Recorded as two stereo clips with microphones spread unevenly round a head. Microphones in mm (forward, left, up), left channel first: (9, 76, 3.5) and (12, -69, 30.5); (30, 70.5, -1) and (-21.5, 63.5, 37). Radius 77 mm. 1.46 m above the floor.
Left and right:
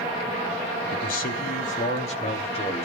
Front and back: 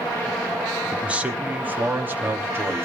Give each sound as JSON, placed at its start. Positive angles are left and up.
{"t": 0.9, "sound": "a man speaking", "azimuth_deg": 125, "distance_m": 1.9}